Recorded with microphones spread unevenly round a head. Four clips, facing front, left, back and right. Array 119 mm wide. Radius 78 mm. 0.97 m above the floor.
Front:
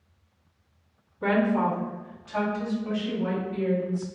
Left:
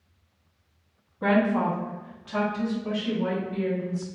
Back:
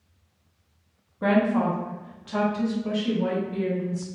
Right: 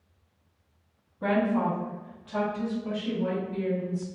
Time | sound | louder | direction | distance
1.2 | a woman speaking | left 3 dB, back 2 dB | 140° right | 0.8 m